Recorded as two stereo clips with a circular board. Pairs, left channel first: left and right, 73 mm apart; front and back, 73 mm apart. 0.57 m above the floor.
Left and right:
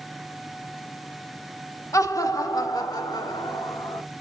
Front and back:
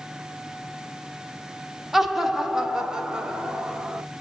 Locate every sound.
1.9 s laughter: 95° left, 1.6 m; by 4.0 s 105° left, 3 m